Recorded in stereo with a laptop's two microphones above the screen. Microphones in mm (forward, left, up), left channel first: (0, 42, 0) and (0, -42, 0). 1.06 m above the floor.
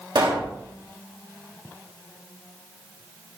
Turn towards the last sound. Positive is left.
turn(degrees=-70)  # may be behind; listen again after turning